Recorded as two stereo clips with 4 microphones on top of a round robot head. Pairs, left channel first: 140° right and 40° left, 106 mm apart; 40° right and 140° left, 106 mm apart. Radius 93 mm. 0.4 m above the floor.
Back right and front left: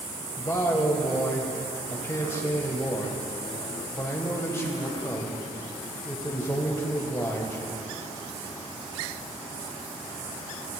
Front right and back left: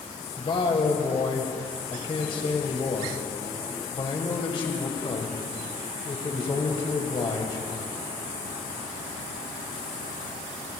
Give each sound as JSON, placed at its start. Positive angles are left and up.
{"t": 0.4, "sound": "a man speaking", "azimuth_deg": -75, "distance_m": 2.5}